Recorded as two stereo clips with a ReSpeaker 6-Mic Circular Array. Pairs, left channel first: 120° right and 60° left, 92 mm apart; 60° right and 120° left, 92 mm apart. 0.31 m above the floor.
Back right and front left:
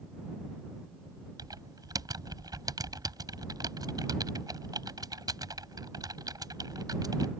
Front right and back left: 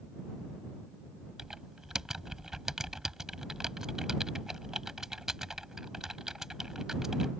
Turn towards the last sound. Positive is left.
turn(degrees=35)